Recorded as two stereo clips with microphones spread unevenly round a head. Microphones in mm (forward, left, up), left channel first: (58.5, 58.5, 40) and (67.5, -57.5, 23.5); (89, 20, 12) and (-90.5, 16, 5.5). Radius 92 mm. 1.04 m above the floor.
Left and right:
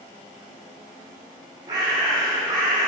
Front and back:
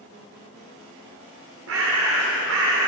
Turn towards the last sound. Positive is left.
turn(degrees=-155)